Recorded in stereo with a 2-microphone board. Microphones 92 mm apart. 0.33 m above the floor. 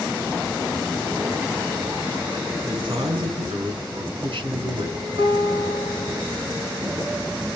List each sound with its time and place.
2.6 s a man speaking: 65° right (ahead or behind), 4 m
5.2 s a guitar: 60° right (ahead or behind), 4 m